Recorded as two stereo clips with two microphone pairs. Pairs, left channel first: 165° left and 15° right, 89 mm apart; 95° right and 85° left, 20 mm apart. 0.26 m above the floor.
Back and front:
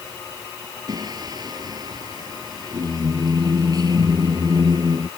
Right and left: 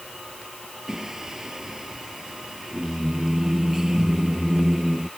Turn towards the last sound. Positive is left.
turn(degrees=25)